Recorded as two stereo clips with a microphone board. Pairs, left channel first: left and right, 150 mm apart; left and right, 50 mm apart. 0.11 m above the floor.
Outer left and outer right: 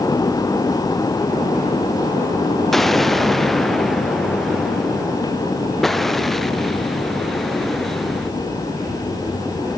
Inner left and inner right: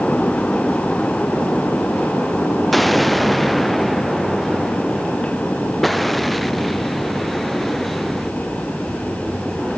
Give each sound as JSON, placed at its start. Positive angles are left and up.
{"t": 2.7, "sound": "an explosion", "side_deg": 0}